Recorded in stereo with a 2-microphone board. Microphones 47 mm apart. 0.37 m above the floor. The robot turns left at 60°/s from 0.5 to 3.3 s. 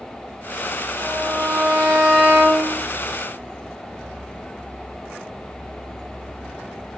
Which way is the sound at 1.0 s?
20° right.